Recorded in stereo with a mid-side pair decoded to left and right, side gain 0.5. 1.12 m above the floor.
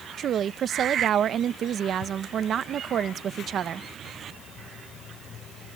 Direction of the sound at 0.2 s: 55° right.